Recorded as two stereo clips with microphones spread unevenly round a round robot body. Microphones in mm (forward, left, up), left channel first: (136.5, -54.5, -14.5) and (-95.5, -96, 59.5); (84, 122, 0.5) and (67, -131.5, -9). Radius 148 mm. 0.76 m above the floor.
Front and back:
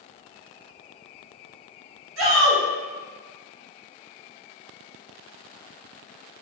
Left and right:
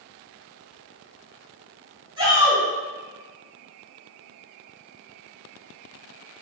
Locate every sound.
2.2 s a shout: 155° right, 1.2 m